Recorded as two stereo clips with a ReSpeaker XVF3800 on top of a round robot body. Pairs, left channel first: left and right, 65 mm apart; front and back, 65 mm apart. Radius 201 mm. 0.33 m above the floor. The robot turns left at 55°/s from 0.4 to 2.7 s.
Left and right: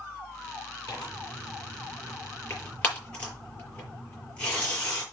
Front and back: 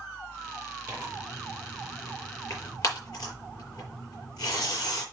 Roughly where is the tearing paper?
Behind left.